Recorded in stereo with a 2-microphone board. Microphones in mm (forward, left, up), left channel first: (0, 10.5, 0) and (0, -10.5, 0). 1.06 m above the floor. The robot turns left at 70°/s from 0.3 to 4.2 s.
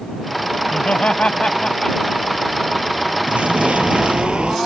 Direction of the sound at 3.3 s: 60° right.